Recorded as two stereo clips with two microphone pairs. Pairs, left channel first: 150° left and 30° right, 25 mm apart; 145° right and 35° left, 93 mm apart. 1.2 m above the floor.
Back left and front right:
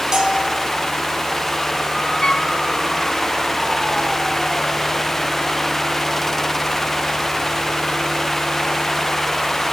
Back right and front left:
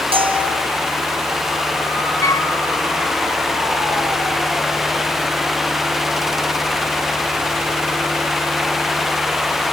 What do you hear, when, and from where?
0.1 s a bell: 35° left, 4 m
2.2 s a flute: 165° right, 1.2 m